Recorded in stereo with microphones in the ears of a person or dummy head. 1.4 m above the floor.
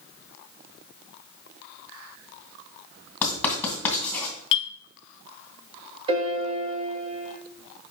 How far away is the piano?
About 1.3 m.